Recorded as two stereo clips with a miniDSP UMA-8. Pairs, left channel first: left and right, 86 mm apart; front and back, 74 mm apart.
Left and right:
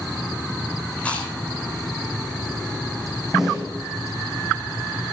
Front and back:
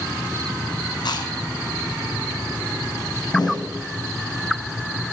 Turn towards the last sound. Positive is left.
turn(degrees=-5)